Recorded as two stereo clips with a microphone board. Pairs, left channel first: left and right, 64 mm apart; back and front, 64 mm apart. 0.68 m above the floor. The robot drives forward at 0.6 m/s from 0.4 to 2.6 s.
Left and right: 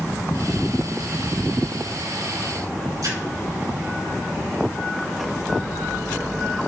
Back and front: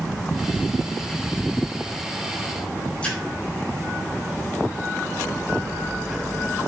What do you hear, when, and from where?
3.0 s a splash: 110° right, 4.5 m